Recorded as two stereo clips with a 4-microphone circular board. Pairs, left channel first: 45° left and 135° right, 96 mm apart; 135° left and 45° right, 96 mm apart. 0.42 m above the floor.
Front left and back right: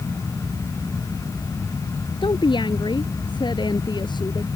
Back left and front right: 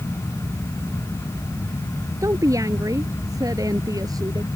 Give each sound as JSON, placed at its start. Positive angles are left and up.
{"t": 2.2, "sound": "a woman speaking", "azimuth_deg": 10}